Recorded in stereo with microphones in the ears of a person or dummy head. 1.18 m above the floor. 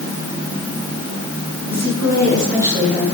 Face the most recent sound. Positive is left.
turn(degrees=20)  # may be behind; listen again after turning